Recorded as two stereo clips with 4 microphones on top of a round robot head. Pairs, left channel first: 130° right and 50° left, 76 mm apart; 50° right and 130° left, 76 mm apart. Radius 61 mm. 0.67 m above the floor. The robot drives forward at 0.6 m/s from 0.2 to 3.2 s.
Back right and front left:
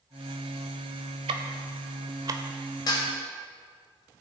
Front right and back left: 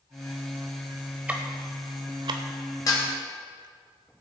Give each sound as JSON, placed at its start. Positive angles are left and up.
{"t": 1.3, "sound": "ticking", "azimuth_deg": 55, "distance_m": 0.9}
{"t": 2.9, "sound": "dishes clattering", "azimuth_deg": -95, "distance_m": 2.5}